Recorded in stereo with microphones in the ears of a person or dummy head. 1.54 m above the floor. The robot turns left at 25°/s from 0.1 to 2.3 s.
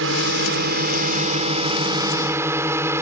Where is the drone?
110° right; by 3.0 s 165° right.